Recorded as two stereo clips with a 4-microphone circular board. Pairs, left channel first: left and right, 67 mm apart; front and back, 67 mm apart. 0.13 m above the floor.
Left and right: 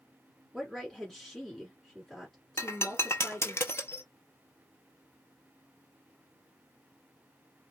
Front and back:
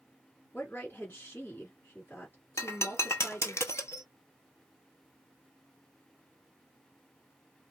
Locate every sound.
0.5 s a woman speaking: 15° left, 1.5 m
2.6 s breaking glass: 45° left, 0.6 m